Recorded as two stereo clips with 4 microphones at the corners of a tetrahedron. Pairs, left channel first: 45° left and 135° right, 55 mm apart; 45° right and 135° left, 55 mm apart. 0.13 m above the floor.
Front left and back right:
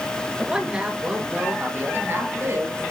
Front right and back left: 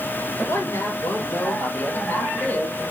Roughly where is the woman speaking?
Ahead right.